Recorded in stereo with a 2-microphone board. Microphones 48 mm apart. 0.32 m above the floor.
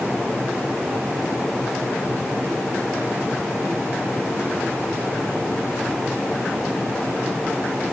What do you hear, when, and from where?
Only background noise.